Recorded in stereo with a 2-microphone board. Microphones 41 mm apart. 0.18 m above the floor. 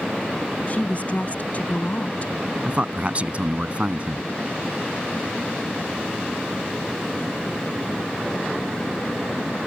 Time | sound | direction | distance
0.7 | a woman speaking | 40° left (ahead or behind) | ?
2.6 | a man speaking | 35° right (ahead or behind) | ?